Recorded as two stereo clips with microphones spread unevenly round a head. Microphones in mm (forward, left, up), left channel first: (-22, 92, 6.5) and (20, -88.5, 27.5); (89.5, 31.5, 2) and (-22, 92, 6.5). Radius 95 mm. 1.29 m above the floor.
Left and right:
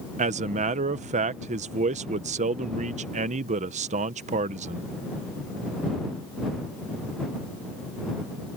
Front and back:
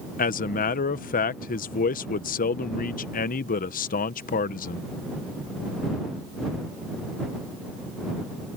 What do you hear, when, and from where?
0.2 s a man speaking: 20° right